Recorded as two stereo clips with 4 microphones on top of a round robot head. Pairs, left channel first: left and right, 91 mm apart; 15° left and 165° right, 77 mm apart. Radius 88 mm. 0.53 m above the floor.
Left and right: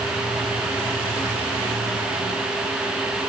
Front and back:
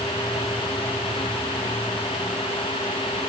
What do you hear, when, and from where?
Only background noise.